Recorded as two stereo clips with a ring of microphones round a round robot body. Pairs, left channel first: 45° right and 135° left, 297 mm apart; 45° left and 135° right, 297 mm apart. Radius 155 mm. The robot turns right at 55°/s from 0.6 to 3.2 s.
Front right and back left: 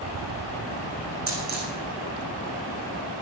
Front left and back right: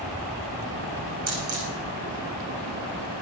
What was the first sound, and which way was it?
A dropped coin, straight behind.